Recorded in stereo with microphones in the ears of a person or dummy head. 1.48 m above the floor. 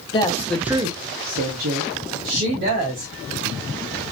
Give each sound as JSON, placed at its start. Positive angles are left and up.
{"t": 0.1, "sound": "a woman speaking", "side_deg": 30, "distance_m": 0.9}